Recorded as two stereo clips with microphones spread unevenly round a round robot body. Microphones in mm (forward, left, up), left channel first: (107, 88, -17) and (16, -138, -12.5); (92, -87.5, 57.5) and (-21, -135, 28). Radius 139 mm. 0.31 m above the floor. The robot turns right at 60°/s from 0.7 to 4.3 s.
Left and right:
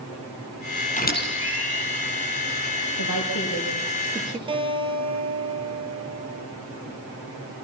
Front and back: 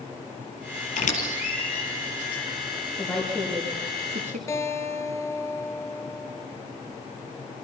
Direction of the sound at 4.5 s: 45° right.